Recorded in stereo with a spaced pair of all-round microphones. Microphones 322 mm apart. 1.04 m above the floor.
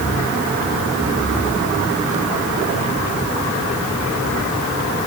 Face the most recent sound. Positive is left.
No sound to turn to.